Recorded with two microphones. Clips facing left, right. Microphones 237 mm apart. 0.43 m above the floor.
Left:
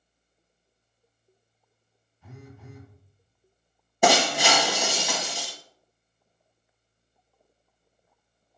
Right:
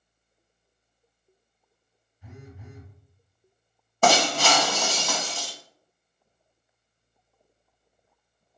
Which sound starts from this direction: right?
A phone buzzing, at 2.2 s.